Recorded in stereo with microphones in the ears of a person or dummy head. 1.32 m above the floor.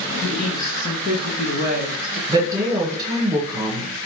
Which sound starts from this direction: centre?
A woman speaking, at 0.2 s.